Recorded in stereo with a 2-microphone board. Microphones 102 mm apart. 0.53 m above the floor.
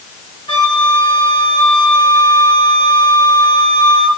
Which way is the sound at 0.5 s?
60° left (ahead or behind).